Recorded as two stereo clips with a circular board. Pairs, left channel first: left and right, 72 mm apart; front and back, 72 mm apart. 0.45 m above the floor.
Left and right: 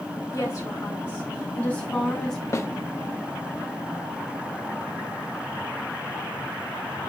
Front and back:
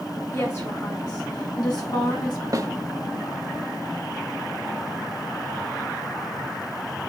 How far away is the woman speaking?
About 3.5 m.